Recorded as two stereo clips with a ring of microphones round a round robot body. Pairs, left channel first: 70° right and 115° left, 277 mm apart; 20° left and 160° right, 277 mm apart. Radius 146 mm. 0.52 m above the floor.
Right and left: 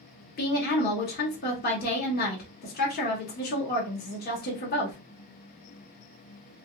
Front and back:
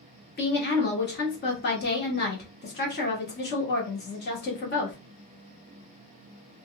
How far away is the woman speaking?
About 1.5 m.